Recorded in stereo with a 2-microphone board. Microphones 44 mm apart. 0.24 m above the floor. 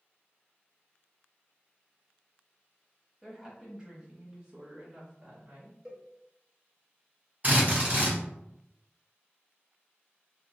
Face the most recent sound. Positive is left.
turn(degrees=-35)  # may be behind; listen again after turning